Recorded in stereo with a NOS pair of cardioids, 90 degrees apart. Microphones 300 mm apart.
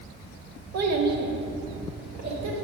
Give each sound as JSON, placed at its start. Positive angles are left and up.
{"t": 0.7, "sound": "a child speaking", "azimuth_deg": -65, "distance_m": 1.3}